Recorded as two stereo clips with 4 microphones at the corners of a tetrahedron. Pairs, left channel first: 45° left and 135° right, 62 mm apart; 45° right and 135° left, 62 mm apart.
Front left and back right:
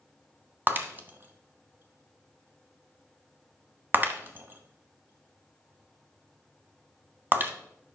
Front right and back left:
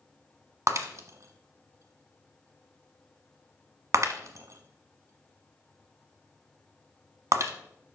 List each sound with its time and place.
0.7 s breaking glass: 170° left, 1.1 m